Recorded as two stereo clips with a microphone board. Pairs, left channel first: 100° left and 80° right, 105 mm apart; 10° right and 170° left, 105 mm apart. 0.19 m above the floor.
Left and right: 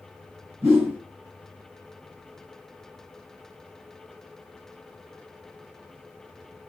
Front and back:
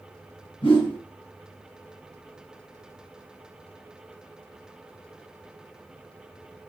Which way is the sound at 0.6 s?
20° right.